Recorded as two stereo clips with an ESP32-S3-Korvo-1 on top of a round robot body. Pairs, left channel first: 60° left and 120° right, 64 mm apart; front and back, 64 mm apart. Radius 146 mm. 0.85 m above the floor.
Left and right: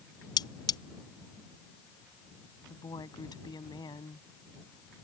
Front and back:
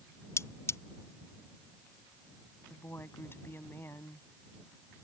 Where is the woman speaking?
55° left.